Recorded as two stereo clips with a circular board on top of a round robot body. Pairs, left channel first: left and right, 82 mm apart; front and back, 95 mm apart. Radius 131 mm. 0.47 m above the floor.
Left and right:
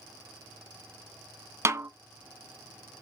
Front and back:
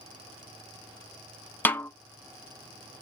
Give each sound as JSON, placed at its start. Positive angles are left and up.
{"t": 1.6, "sound": "a snare drum", "azimuth_deg": -60, "distance_m": 1.1}